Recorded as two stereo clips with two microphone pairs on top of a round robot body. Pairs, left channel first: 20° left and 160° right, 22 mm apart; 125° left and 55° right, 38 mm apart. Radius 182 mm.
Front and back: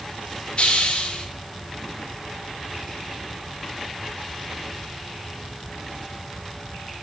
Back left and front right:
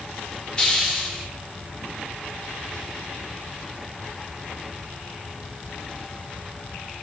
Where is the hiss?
55° left, 3.5 m.